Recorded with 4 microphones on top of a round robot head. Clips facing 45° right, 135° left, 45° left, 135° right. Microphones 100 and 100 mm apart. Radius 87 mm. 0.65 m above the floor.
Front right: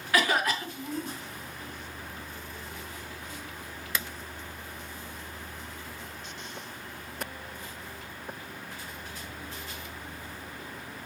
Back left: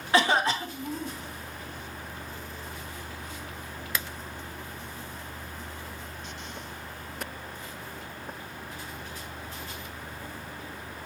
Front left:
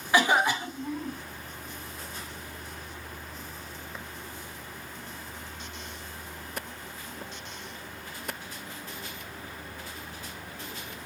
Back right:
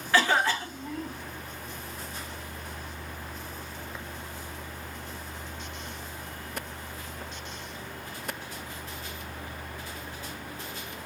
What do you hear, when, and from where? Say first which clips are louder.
0.1 s a cough: back left 3 dB, front left 1 dB; 105° left, 0.9 m